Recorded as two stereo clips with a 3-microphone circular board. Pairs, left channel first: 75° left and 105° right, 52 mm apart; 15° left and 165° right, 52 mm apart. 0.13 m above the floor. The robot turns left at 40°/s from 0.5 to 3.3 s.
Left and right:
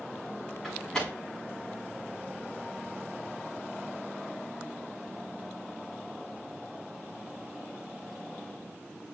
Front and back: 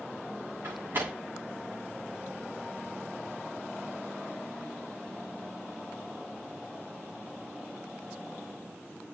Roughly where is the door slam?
Behind.